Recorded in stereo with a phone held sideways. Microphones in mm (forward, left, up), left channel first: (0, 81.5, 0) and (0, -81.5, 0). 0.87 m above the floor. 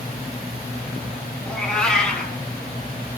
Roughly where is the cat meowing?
Centre.